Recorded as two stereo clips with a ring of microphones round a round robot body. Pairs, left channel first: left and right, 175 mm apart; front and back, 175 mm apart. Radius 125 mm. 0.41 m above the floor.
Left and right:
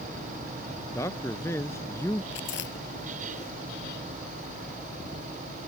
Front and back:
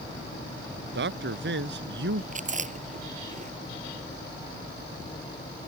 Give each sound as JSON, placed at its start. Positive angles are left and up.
{"t": 0.9, "sound": "a man speaking", "azimuth_deg": 170}
{"t": 2.3, "sound": "chewing", "azimuth_deg": 135}